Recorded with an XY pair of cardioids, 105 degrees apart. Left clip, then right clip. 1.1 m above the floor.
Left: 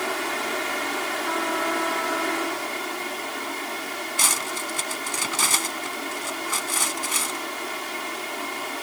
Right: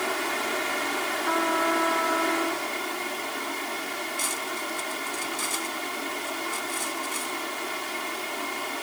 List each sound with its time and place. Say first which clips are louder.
0.0 s a fan: left 1 dB; 10° left
1.3 s a trumpet: right 3 dB; 15° right
4.2 s cutlery clinking: left 10 dB; 65° left